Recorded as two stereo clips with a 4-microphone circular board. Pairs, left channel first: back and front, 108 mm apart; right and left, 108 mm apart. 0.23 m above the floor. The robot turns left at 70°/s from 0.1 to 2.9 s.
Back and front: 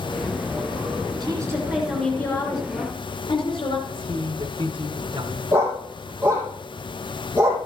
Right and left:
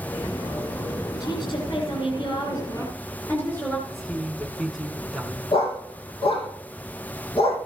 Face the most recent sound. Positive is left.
turn(degrees=-65)